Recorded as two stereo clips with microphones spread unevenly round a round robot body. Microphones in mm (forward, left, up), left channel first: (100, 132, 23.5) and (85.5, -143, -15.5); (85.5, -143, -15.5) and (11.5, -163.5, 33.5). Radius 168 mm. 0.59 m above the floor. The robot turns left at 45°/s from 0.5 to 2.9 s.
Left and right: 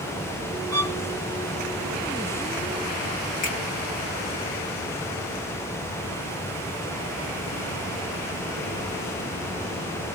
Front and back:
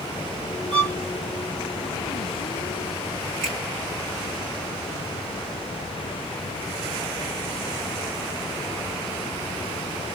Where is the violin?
160° right, 1.6 m; by 0.9 s 170° right, 1.6 m.